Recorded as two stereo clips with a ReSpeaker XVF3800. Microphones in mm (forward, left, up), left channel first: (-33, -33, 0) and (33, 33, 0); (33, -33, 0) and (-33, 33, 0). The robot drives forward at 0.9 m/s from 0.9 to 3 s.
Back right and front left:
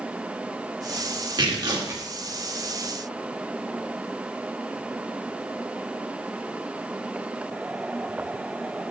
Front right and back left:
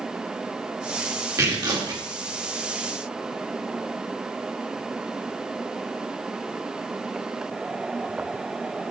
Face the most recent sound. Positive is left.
turn(degrees=125)